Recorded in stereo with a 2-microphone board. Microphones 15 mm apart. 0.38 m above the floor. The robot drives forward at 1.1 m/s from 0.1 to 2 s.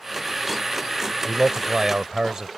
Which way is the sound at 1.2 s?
45° right (ahead or behind).